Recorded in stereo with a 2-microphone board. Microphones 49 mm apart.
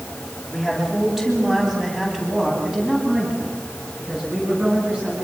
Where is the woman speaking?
5° right (ahead or behind), 9 m; by 5.2 s 20° right (ahead or behind), 13 m.